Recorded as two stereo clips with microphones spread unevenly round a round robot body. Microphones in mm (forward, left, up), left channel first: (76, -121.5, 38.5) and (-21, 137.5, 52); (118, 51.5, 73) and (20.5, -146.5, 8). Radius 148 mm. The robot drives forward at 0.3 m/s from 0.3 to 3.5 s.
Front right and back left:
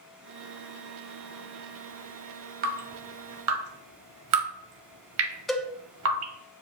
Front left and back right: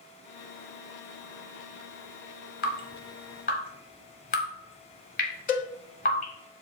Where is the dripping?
60° left, 0.5 m; by 6.3 s 100° left, 0.5 m.